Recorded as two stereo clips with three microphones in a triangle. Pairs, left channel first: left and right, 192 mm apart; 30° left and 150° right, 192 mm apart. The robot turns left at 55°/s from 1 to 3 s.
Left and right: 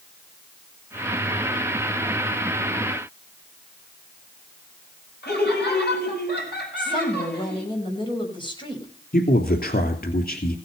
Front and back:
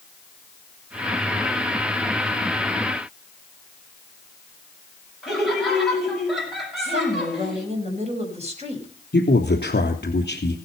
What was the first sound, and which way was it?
Laughter, 120° left.